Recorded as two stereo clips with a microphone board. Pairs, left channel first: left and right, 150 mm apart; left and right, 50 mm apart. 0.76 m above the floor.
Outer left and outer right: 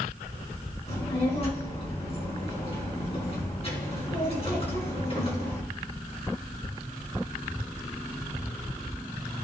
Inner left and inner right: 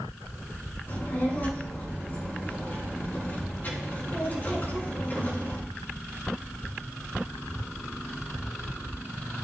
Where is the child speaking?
40° left (ahead or behind), 4 m.